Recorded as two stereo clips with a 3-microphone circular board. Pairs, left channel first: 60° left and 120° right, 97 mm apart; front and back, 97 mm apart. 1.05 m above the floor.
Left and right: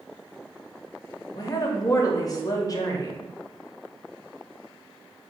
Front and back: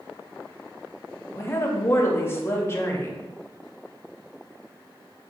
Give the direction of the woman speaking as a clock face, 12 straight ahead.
10 o'clock.